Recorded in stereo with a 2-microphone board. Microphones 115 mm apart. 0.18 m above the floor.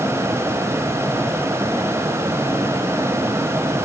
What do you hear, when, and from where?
Only background noise.